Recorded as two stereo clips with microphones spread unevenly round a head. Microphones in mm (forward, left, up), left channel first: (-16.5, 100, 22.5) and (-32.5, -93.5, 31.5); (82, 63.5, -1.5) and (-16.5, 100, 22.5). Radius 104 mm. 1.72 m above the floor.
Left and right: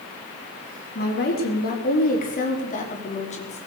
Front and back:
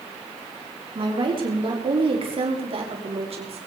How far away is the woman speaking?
About 5 m.